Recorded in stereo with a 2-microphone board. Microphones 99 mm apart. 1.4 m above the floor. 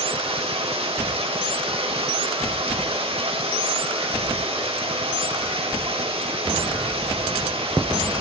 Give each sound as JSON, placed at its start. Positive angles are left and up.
{"t": 0.0, "sound": "running water", "side_deg": -75, "distance_m": 2.5}